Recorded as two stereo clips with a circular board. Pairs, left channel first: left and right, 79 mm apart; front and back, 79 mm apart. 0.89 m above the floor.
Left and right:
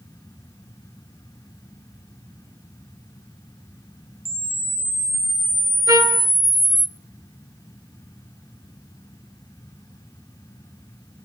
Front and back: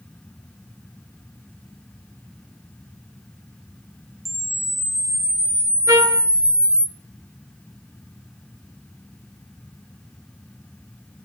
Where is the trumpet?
130° right, 1.5 m.